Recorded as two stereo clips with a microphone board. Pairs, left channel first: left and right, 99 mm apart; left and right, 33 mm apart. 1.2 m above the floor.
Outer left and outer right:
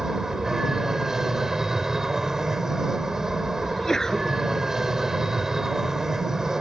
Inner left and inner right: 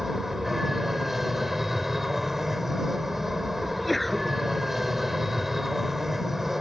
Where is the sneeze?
5° left (ahead or behind).